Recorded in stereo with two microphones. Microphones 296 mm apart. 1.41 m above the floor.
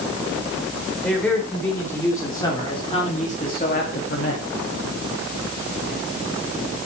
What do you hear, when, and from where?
1.0 s a man speaking: 5° left (ahead or behind), 5 m; by 4.5 s 50° left (ahead or behind), 2 m